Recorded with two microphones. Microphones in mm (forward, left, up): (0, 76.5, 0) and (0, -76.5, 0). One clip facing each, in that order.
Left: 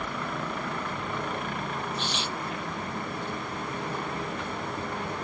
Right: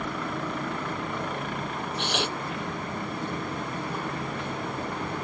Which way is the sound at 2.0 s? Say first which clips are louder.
Right 3 dB; 65° right (ahead or behind).